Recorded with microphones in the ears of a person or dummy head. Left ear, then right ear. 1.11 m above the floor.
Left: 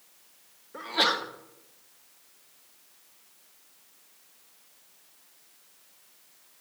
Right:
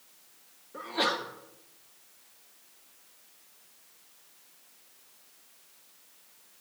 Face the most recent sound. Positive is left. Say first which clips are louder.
# left 4 dB
turn(degrees=15)  # may be behind; listen again after turning